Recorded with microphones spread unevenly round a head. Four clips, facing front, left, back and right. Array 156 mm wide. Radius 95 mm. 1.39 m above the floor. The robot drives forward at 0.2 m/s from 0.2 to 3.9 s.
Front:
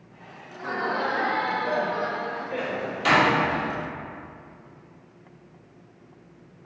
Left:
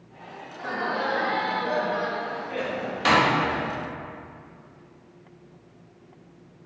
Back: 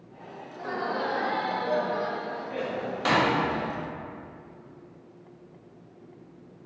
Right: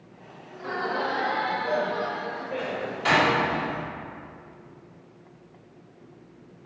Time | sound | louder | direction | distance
0.5 | laughter | even, front 3 dB | 50° left | 2 m
2.6 | a door slam | left 4 dB, even | 90° left | 1.6 m